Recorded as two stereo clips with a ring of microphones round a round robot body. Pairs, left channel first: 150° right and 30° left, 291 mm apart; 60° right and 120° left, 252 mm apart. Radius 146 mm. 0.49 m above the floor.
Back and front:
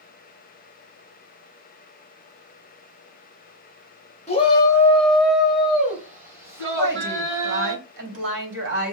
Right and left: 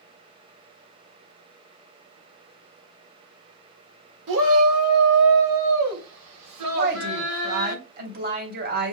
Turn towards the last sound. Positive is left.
turn(degrees=75)